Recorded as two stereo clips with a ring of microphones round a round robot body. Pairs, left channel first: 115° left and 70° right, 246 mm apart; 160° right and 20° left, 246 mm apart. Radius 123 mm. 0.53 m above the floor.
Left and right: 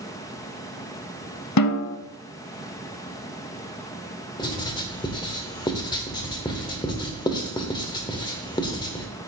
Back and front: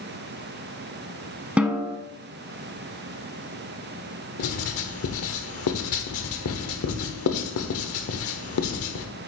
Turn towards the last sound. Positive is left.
turn(degrees=-175)